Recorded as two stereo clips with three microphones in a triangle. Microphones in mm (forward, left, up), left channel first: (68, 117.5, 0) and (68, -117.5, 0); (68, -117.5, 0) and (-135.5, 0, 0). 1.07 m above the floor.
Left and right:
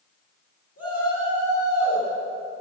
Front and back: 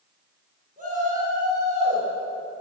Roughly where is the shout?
Left.